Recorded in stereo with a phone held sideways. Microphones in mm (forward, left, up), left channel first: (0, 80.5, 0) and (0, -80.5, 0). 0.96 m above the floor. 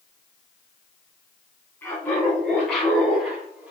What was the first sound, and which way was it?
Laughter, 10° left (ahead or behind).